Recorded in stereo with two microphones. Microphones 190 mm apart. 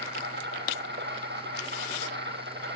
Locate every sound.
0.0 s an insect: 70° right (ahead or behind), 5 m